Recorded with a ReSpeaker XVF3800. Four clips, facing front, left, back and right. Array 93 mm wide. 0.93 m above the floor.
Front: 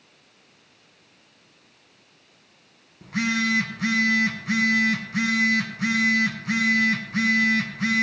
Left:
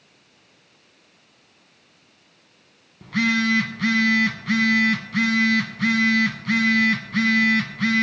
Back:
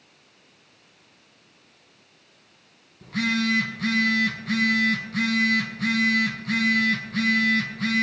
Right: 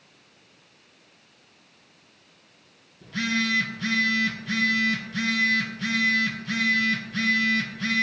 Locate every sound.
3.0 s a phone buzzing: 75° left, 1.6 m